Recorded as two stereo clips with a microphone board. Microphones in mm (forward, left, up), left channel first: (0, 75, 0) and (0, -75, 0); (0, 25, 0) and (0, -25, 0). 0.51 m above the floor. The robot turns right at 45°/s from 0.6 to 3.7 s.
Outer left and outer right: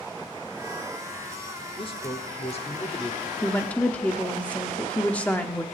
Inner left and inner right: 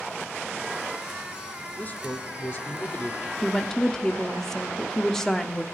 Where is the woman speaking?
15° left (ahead or behind), 0.9 m; by 5.6 s 10° left (ahead or behind), 0.9 m.